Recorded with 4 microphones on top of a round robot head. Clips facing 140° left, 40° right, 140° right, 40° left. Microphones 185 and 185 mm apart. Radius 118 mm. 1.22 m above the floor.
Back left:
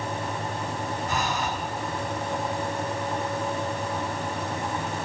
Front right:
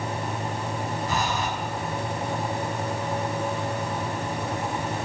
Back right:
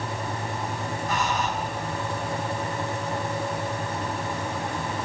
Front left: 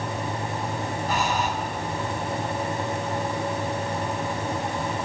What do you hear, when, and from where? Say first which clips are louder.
1.1 s breathing: front right 1 dB, front left 1 dB; 20° right, 5.5 m